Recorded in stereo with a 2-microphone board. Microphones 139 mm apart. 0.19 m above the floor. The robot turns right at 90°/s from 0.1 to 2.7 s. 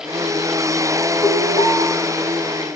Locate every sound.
1.2 s an alarm: 135° left, 2.5 m; by 1.8 s 175° right, 2.5 m